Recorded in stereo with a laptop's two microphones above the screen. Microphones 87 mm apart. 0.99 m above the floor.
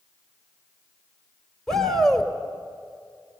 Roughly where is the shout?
Centre.